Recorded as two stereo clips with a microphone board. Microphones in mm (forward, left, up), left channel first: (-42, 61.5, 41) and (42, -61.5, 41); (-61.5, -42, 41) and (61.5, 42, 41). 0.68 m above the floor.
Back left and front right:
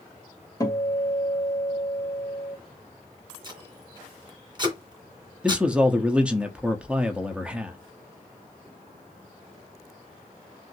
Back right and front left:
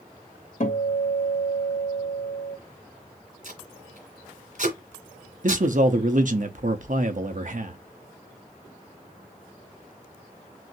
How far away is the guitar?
About 2.0 m.